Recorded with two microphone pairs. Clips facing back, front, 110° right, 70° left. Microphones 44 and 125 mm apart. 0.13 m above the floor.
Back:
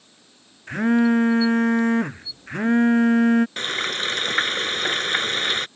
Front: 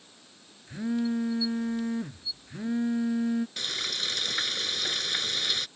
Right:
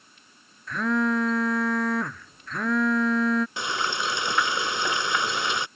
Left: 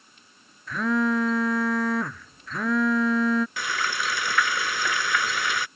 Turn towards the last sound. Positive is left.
turn(degrees=-170)